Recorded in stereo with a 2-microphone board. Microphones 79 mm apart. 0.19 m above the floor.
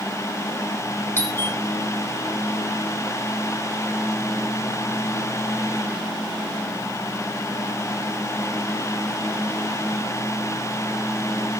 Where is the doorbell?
30° left (ahead or behind), 3.5 m.